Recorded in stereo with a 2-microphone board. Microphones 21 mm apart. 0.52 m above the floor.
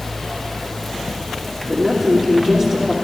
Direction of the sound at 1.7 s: 35° right (ahead or behind).